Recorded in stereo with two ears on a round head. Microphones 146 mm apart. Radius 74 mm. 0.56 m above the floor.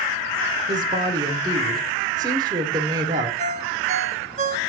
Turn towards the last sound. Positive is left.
turn(degrees=-45)  # may be behind; listen again after turning